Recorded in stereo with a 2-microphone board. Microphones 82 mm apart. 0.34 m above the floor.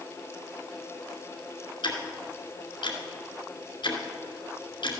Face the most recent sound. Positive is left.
turn(degrees=65)  # may be behind; listen again after turning